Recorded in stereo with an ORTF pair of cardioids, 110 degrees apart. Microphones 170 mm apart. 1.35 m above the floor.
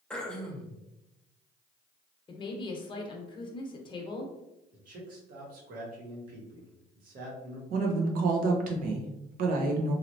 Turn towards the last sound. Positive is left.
turn(degrees=-70)